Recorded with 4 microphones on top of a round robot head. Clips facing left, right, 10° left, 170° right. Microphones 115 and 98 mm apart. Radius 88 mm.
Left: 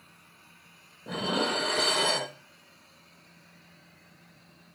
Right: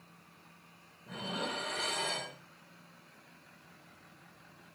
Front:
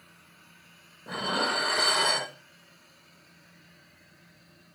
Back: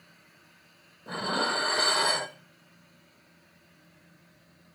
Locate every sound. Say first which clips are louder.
1.1 s dishes clattering: left 10 dB, even; 105° left, 0.8 m